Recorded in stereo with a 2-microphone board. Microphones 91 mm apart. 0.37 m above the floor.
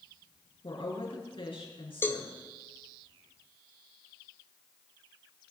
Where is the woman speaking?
75° left (ahead or behind), 5.5 m.